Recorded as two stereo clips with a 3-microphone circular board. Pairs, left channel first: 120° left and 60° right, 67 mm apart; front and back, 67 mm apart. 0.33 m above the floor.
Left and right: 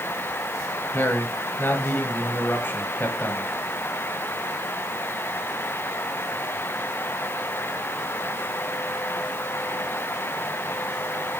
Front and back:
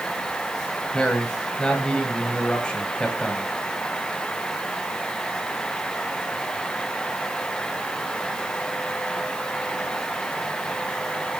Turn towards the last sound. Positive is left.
turn(degrees=70)